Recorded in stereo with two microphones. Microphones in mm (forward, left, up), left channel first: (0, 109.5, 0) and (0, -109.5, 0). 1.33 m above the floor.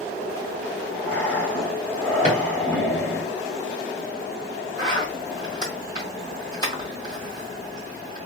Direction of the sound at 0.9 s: 10° left (ahead or behind).